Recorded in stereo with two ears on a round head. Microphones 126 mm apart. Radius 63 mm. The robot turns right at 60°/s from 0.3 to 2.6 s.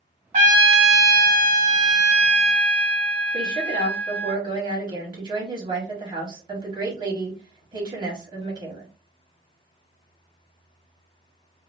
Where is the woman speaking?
30° right (ahead or behind), 1.5 m.